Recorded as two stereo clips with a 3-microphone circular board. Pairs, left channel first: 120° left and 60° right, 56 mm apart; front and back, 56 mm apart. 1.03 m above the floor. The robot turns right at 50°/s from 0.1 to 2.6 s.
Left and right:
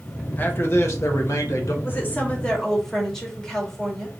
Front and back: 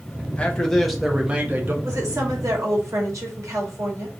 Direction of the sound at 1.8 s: 165° left.